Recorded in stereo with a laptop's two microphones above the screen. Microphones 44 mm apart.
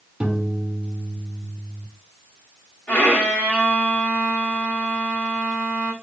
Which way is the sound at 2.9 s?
25° left (ahead or behind).